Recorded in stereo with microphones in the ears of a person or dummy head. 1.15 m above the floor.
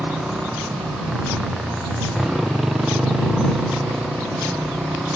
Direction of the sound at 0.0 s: 5° right (ahead or behind).